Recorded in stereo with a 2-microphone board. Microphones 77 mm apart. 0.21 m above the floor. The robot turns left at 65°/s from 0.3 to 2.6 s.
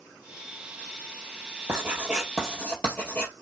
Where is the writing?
145° right, 2 m; by 3.3 s 155° left, 2 m.